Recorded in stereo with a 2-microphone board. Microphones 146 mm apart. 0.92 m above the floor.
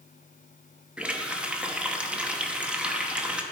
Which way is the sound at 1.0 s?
5° right (ahead or behind).